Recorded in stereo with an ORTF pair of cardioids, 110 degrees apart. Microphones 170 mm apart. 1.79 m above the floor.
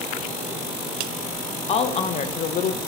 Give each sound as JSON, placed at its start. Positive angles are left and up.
{"t": 1.7, "sound": "a woman speaking", "azimuth_deg": 40, "distance_m": 1.5}